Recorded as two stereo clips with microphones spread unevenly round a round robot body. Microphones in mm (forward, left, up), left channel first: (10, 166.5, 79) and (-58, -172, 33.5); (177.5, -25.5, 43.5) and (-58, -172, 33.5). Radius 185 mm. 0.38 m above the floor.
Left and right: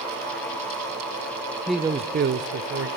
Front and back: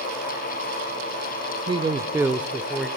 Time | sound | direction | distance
1.7 | a man speaking | straight behind | 0.8 m